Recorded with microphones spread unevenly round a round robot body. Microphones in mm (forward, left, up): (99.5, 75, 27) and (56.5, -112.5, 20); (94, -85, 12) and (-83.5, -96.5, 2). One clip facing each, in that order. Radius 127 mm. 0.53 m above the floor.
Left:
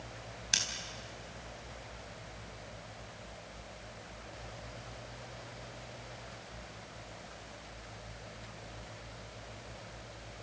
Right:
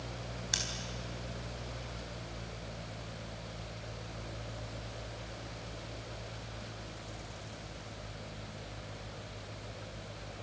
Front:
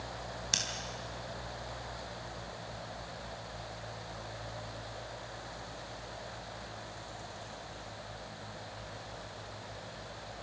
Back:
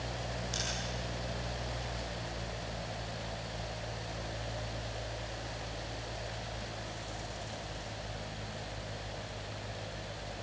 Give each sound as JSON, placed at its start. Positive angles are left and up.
{"t": 0.5, "sound": "scissors", "azimuth_deg": 15, "distance_m": 4.5}